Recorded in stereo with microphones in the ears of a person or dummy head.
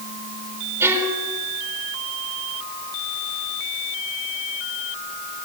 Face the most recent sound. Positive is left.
turn(degrees=-15)  # may be behind; listen again after turning